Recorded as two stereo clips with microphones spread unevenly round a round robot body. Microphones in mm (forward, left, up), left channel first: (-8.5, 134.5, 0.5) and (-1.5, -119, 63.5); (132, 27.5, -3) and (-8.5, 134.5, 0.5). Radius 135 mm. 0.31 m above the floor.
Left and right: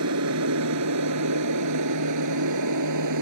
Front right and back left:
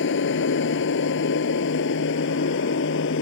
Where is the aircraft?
55° right; by 3.2 s 70° right.